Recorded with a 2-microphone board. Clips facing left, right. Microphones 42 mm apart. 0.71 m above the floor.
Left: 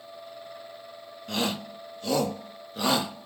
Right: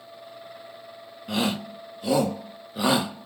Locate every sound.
1.3 s a shout: 10° right (ahead or behind), 0.8 m